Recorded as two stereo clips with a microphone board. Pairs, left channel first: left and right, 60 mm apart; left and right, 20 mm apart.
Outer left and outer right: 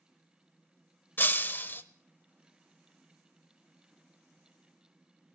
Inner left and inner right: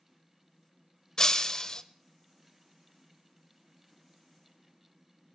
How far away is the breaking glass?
About 0.7 m.